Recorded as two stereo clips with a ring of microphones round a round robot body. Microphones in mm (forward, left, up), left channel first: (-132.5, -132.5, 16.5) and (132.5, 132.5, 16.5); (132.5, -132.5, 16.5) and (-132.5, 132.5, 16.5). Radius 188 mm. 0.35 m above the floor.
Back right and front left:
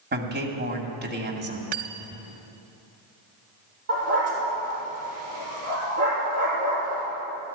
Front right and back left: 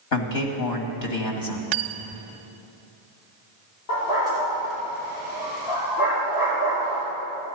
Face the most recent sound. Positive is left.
turn(degrees=-10)